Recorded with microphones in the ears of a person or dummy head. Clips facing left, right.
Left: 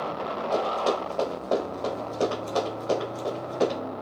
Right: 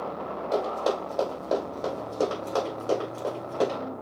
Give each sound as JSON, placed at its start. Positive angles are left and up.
{"t": 0.5, "sound": "running footsteps", "side_deg": -20, "distance_m": 3.0}